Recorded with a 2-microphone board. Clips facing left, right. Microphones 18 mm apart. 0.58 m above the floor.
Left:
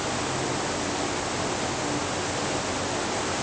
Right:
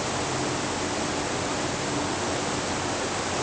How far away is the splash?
I don't hear a splash.